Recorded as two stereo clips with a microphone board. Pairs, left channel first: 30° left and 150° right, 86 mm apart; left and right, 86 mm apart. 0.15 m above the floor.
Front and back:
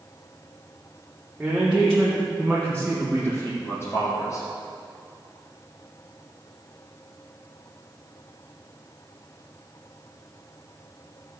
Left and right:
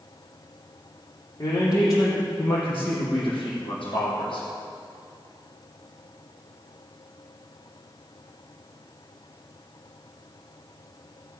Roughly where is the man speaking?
Behind left.